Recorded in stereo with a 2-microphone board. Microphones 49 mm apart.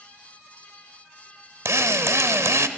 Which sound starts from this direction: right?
A drill, at 1.6 s.